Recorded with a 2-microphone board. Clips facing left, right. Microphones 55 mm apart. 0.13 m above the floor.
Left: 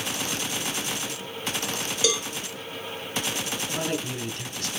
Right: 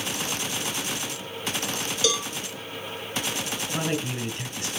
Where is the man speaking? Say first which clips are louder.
Right 2 dB; 20° right (ahead or behind), 1.2 m.